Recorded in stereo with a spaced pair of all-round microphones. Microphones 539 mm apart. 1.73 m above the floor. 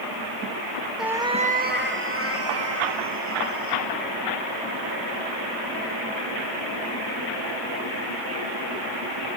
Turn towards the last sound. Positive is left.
turn(degrees=-30)  # may be behind; listen again after turning